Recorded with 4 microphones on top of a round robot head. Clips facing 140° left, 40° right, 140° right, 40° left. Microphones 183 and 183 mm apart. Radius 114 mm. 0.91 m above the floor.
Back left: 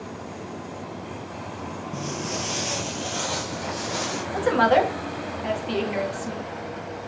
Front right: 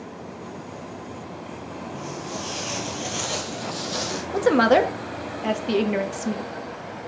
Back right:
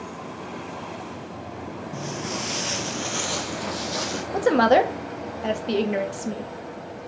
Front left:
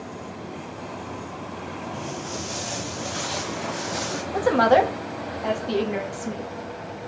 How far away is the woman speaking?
About 1.3 m.